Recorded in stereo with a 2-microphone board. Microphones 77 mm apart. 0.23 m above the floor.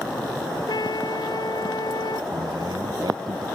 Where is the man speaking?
65° right (ahead or behind).